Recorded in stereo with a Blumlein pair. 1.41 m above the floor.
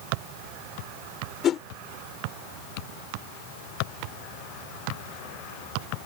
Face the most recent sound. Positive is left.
turn(degrees=30)